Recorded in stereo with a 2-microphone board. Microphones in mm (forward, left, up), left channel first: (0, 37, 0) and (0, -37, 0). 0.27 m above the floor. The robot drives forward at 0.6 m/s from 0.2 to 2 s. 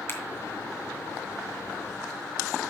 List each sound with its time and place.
0.1 s a finger snap: 40° left (ahead or behind), 2.5 m